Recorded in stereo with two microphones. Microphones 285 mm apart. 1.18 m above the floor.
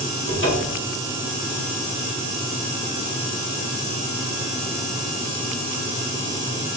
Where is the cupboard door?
45° left (ahead or behind), 2.5 m.